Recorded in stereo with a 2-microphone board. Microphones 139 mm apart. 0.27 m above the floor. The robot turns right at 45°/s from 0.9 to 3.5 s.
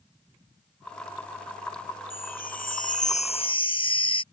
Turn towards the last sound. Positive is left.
turn(degrees=140)